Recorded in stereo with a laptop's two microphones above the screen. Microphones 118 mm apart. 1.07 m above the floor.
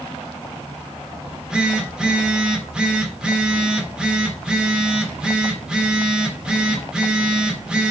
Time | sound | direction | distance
1.2 | a phone buzzing | 5° right (ahead or behind) | 2.0 m